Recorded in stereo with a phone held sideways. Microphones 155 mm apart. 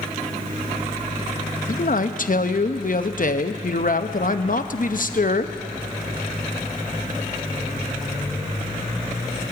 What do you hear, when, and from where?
1.7 s a man speaking: 60° left (ahead or behind), 0.6 m